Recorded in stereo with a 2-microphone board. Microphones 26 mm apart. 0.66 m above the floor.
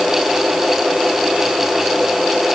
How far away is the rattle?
I don't hear a rattle.